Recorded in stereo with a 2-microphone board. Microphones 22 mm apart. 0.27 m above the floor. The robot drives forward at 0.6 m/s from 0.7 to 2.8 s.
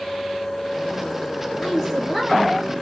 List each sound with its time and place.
1.6 s a woman speaking: 5° left (ahead or behind), 2 m; by 2.6 s centre (ahead or behind), 2.5 m